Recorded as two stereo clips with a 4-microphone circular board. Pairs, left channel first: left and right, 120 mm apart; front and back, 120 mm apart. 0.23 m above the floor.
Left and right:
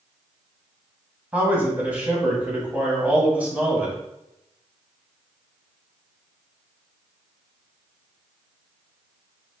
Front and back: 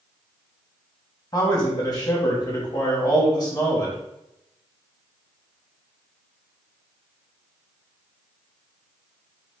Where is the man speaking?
20° right, 1.5 m.